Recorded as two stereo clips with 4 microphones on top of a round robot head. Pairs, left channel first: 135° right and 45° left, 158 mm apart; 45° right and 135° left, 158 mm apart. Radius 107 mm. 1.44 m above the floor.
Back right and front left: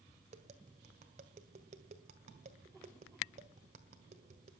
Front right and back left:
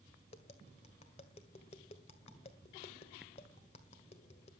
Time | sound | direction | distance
0.3 | tapping | 5° left | 1.8 m